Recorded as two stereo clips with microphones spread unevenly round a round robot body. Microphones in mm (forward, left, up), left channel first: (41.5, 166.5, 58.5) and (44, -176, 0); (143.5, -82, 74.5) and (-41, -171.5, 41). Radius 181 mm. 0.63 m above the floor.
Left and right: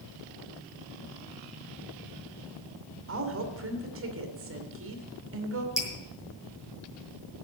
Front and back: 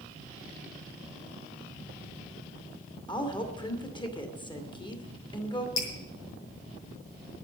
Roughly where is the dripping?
Ahead.